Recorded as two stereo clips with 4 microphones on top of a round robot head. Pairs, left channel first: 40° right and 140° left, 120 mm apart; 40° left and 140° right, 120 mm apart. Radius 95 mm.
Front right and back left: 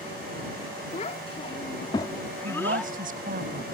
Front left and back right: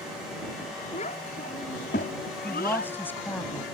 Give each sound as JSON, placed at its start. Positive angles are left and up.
{"t": 0.9, "sound": "a child speaking", "azimuth_deg": 0}
{"t": 2.4, "sound": "a woman speaking", "azimuth_deg": 120}